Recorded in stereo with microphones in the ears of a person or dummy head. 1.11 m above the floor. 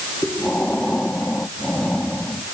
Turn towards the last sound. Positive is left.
turn(degrees=0)  # may be behind; listen again after turning